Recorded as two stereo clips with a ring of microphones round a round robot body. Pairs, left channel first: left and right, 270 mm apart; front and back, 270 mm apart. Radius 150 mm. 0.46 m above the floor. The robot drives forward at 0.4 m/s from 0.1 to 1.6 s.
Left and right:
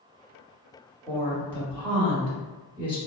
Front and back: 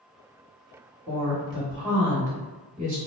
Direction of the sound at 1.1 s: 170° left.